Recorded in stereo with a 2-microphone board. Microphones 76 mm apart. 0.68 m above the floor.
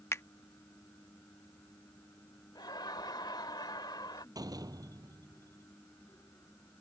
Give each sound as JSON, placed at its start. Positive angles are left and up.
{"t": 0.1, "sound": "a finger snap", "side_deg": 40}
{"t": 2.5, "sound": "laughter", "side_deg": 70}
{"t": 4.3, "sound": "a door slam", "side_deg": -55}